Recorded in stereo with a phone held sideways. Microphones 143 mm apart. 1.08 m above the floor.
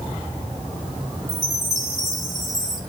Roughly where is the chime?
Centre.